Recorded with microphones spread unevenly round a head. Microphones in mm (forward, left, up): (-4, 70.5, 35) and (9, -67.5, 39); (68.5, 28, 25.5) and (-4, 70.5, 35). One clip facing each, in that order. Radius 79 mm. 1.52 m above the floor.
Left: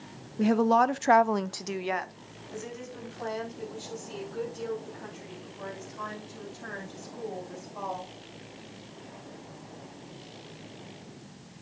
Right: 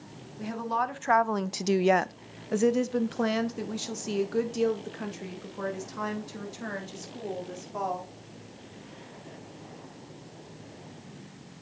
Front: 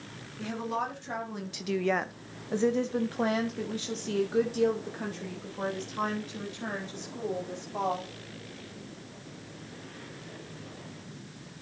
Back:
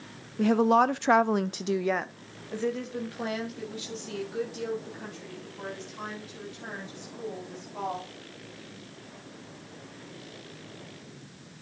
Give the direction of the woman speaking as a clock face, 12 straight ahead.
8 o'clock.